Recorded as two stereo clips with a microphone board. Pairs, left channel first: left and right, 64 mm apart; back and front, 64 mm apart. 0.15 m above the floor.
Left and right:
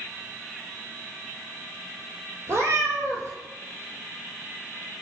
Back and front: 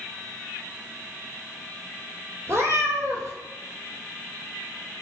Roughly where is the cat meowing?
Ahead right.